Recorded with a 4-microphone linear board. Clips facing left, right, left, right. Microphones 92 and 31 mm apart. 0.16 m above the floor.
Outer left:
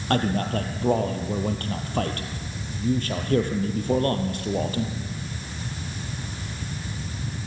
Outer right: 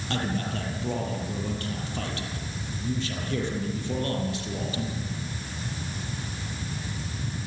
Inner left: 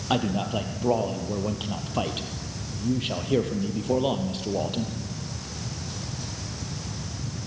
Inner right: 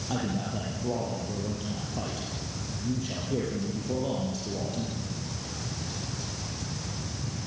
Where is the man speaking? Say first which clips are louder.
Outer left 6 dB, inner left 6 dB; 50° left (ahead or behind), 4 m.